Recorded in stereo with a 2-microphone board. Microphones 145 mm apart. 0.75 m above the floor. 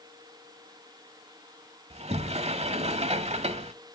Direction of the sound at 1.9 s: 50° right (ahead or behind).